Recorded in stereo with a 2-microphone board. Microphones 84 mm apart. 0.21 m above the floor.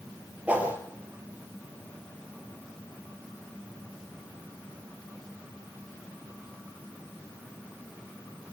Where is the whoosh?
15° right (ahead or behind), 6 m.